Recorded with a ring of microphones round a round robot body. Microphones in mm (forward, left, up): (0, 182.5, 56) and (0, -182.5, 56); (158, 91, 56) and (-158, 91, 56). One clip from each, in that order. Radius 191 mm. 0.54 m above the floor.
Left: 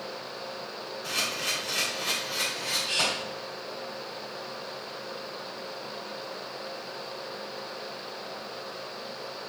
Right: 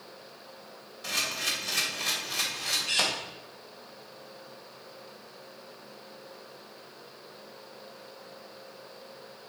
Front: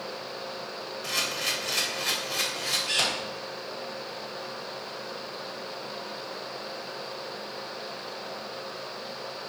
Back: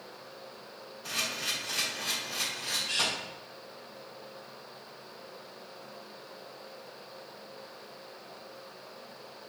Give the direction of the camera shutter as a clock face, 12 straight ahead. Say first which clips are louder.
Even, front 4 dB; 1 o'clock.